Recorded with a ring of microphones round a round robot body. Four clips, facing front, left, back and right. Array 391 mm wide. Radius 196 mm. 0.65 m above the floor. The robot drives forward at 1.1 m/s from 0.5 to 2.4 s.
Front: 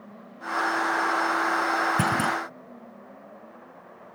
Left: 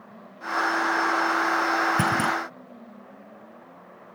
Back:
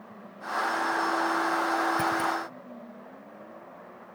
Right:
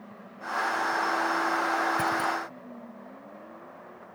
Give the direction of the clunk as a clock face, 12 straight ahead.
11 o'clock.